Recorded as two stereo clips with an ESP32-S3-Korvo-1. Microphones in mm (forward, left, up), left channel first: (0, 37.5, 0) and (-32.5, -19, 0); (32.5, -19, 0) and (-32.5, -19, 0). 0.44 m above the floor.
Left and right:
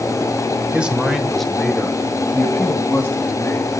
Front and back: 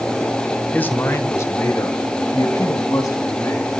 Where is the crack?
No crack in this recording.